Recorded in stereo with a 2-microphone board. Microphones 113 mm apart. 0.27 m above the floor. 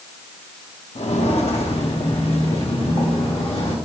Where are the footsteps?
70° left (ahead or behind), 1.6 m; by 3.8 s 55° left (ahead or behind), 3.5 m.